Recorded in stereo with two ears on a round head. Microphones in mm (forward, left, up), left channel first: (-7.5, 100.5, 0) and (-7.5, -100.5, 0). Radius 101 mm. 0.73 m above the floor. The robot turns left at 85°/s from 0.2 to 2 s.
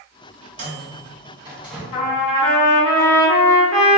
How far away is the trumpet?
About 0.8 m.